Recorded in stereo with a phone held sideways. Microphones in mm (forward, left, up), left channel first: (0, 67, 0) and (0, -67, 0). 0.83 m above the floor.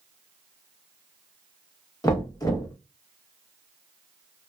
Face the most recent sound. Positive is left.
turn(degrees=30)  # may be behind; listen again after turning